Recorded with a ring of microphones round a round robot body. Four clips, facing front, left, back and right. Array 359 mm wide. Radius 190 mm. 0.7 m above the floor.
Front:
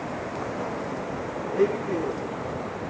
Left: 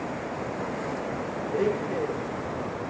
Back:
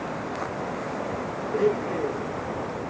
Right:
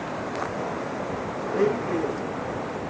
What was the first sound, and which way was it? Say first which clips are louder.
A blender: right 3 dB, even; 70° right.